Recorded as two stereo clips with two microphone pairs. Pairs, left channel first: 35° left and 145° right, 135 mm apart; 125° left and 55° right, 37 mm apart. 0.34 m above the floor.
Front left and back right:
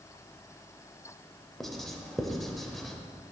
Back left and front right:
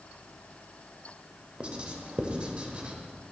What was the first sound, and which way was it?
Writing, 55° right.